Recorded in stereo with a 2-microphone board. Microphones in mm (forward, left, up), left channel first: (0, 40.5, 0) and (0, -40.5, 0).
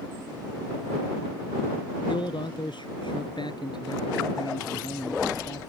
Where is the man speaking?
75° left (ahead or behind); by 5.6 s 55° left (ahead or behind).